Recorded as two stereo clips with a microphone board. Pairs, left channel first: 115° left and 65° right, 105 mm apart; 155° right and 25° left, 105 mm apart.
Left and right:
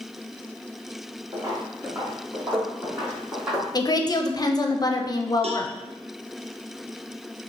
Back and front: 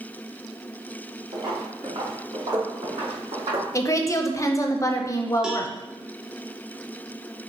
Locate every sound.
1.3 s footsteps: 15° right, 2 m; by 3.6 s 15° left, 2.5 m
3.7 s a woman speaking: 150° left, 0.5 m
5.4 s a cowbell: 60° right, 0.6 m